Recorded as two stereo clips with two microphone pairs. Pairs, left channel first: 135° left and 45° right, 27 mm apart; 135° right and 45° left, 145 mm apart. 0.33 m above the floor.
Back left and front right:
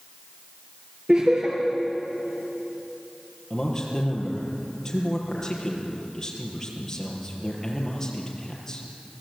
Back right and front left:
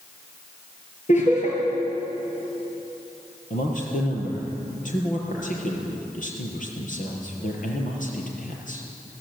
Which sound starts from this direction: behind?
A man speaking, at 3.5 s.